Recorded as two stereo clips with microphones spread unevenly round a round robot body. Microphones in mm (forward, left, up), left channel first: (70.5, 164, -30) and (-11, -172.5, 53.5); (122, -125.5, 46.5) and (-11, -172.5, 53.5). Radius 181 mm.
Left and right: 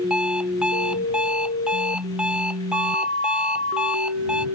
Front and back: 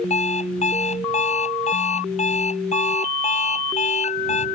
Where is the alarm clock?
15° right.